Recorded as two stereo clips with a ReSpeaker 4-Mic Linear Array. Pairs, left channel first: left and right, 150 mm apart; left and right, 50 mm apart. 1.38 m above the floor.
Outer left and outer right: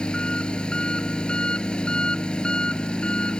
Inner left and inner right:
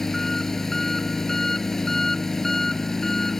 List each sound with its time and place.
0.0 s an engine running: 5° left (ahead or behind)